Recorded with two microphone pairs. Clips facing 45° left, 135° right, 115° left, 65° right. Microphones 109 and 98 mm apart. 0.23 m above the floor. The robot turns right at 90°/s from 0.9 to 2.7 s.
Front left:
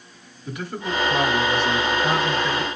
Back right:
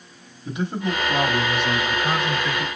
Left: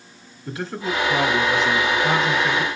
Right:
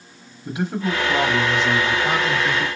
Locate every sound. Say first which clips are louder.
0.5 s a man speaking: back right 3 dB, right 3 dB; 115° right, 1.0 m; by 2.7 s 45° left, 1.0 m